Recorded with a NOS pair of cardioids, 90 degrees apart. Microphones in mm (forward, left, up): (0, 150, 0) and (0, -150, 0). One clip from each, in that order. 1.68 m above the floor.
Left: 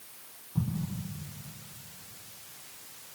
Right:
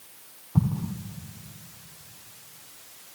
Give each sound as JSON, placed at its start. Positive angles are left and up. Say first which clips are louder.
{"t": 0.6, "sound": "an explosion", "louder": "right 6 dB", "azimuth_deg": -65, "distance_m": 1.6}